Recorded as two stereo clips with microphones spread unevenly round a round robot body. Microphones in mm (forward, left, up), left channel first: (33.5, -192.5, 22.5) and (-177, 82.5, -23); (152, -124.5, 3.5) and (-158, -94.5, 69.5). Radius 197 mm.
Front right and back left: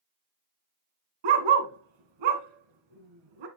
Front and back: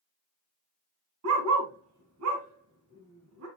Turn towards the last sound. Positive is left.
turn(degrees=115)